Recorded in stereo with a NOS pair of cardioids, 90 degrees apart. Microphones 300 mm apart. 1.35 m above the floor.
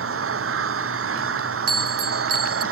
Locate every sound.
0.0 s an engine running: 45° right
1.7 s a bell: 55° right